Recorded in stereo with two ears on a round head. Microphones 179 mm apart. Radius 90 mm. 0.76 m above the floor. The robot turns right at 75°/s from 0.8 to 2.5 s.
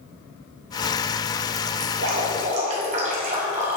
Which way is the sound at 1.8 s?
90° right.